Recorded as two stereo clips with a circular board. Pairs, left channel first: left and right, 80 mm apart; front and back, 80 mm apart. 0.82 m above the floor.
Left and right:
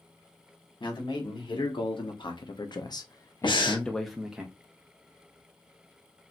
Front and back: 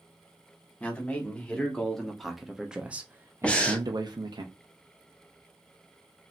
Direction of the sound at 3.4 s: 75° left.